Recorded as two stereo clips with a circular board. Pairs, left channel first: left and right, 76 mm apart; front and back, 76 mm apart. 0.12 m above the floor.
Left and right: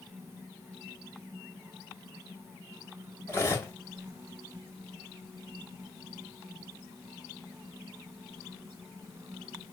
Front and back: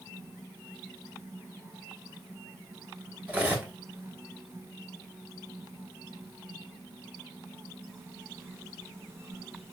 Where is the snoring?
No snoring in this recording.